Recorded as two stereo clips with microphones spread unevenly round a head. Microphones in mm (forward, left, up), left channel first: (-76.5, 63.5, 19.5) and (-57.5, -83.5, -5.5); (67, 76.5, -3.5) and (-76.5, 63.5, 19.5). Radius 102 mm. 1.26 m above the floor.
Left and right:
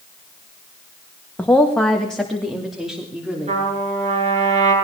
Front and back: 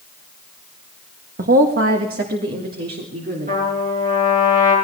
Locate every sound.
1.4 s a woman speaking: 175° left, 1.6 m; by 3.6 s 165° right, 3.5 m
3.5 s a trumpet: 120° right, 8.5 m